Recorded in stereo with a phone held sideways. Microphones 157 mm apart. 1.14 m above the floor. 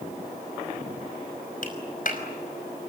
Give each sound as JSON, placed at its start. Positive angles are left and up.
{"t": 1.6, "sound": "a clap", "side_deg": 60, "distance_m": 5.0}